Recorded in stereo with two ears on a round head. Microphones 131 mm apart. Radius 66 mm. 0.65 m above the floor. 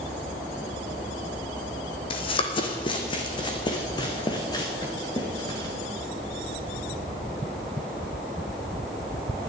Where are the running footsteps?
40° left (ahead or behind), 1.5 m; by 5.8 s 25° left (ahead or behind), 3.5 m.